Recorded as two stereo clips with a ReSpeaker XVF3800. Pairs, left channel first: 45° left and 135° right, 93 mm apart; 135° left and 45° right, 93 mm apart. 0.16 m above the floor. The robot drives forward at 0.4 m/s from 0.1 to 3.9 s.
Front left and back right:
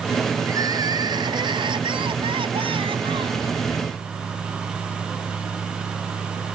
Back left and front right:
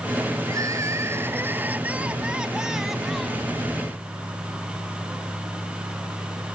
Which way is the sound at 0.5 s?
90° right.